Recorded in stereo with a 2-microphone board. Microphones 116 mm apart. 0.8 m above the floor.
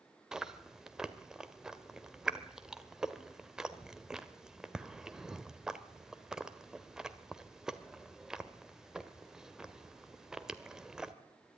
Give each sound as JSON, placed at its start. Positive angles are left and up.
{"t": 0.3, "sound": "chewing", "side_deg": -5, "distance_m": 1.4}